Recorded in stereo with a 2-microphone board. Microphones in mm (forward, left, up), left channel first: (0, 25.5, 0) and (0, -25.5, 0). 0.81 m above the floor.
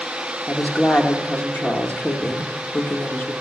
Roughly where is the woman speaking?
Left.